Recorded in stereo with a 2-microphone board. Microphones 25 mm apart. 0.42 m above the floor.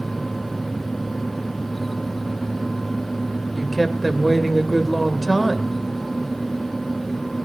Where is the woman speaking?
5° left (ahead or behind), 1.9 m.